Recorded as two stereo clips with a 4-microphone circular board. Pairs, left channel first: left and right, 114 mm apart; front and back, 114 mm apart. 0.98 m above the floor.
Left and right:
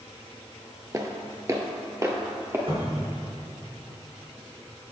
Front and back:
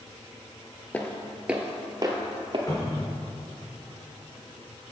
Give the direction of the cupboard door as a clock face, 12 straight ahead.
2 o'clock.